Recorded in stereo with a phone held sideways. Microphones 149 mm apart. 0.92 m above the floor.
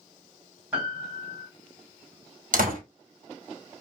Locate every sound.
0.7 s a piano: 15° right (ahead or behind), 1.6 m
2.5 s a door slam: 85° right, 1.2 m